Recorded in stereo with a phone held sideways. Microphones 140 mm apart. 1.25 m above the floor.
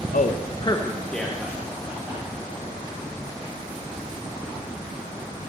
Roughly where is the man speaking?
Left.